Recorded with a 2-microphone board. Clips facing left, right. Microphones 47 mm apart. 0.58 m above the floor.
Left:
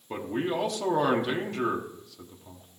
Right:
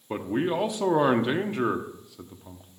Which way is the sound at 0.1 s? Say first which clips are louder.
Right 3 dB; 20° right (ahead or behind).